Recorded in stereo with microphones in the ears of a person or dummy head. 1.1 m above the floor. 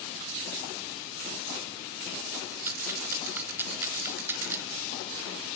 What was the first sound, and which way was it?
A rattle, 15° right (ahead or behind).